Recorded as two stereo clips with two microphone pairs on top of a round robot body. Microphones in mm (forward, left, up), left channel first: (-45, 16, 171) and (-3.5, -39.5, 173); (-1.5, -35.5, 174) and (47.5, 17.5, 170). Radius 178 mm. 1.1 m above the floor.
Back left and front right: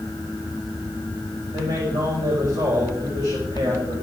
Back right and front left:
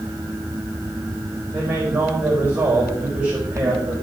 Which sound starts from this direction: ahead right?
A man speaking, at 1.5 s.